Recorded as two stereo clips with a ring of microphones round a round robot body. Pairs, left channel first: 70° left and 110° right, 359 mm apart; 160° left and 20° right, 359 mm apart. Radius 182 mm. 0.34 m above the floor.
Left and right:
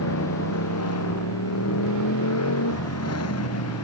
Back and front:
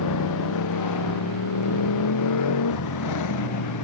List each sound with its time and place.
0.0 s a motorcycle: 115° left